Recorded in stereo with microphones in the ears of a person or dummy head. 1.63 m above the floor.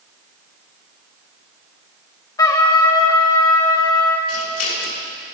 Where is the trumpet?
20° left (ahead or behind), 0.7 m.